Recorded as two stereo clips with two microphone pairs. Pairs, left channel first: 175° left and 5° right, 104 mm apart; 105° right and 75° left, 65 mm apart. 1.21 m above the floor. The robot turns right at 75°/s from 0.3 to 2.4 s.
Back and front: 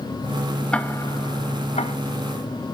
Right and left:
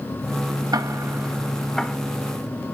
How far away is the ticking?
About 1.2 m.